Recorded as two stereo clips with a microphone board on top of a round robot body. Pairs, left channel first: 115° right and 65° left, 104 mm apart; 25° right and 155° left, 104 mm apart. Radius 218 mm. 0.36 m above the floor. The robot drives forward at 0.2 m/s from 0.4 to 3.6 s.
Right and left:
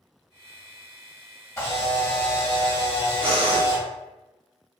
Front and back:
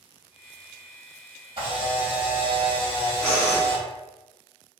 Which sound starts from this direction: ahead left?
Breathing, at 3.2 s.